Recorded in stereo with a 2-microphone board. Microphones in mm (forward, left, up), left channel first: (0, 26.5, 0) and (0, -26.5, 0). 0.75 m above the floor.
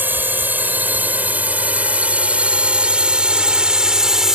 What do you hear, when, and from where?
0.0 s a drone: 40° right (ahead or behind); by 4.3 s 10° right (ahead or behind)